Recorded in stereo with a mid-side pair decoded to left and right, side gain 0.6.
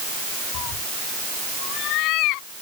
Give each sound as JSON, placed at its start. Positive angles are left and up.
{"t": 0.5, "sound": "a cat meowing", "azimuth_deg": 65}